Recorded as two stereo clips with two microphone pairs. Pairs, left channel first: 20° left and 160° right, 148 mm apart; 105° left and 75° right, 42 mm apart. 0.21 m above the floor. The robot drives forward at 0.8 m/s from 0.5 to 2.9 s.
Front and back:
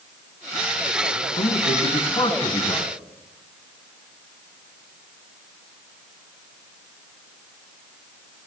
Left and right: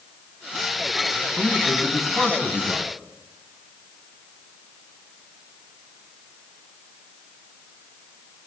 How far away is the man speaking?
About 2.5 m.